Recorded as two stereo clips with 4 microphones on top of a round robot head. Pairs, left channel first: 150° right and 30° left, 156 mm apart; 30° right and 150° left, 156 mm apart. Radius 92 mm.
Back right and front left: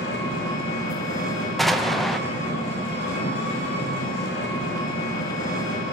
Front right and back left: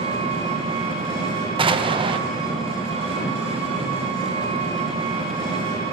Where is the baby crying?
No baby crying in this recording.